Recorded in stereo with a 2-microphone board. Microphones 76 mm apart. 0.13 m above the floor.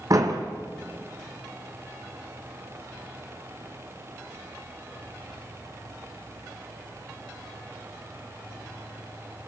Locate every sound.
0.1 s a door slam: 50° right (ahead or behind), 3.5 m